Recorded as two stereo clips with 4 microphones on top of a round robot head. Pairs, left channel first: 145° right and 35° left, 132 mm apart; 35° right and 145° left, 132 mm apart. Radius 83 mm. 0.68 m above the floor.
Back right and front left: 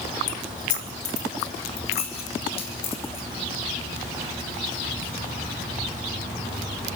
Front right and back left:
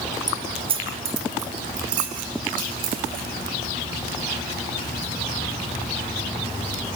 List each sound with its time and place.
0.3 s keys jangling: 155° right, 1.7 m; by 5.6 s 155° left, 6.5 m